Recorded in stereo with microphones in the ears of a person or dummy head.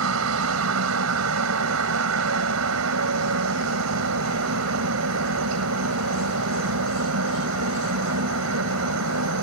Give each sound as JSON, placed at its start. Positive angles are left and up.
{"t": 0.0, "sound": "a helicopter", "side_deg": -75}